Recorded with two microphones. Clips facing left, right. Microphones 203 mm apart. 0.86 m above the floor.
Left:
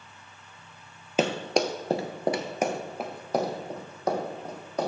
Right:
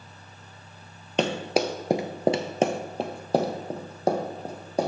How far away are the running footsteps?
About 1.0 m.